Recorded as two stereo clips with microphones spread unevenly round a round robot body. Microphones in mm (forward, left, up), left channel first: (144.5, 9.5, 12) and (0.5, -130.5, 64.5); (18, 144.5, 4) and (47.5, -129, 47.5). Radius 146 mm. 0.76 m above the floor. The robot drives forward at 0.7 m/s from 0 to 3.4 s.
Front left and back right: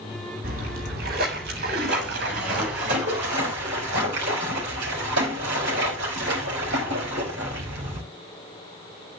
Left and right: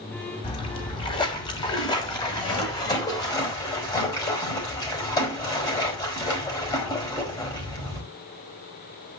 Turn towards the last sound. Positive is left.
turn(degrees=170)